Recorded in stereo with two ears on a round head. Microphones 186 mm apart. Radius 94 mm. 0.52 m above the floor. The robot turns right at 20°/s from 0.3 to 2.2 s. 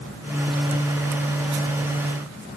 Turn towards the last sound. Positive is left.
No sound to turn to.